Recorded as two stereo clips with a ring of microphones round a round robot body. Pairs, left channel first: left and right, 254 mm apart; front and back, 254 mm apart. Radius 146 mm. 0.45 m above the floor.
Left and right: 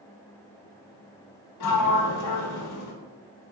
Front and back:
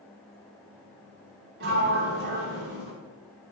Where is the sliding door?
125° left, 0.5 m.